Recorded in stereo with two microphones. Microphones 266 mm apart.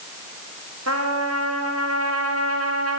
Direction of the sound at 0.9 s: 65° right (ahead or behind).